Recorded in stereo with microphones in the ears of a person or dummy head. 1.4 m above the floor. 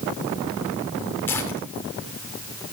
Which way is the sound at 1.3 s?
10° left (ahead or behind).